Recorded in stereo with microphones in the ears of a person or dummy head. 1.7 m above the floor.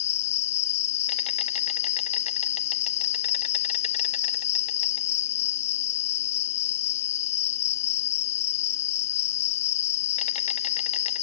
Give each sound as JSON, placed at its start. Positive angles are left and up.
{"t": 0.0, "sound": "an insect", "side_deg": 35}